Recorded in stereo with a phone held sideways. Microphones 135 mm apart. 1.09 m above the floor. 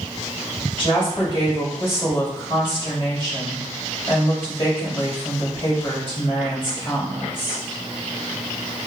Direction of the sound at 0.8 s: 40° left (ahead or behind).